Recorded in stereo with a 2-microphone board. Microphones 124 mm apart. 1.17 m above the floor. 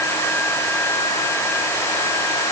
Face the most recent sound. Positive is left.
No sound to turn to.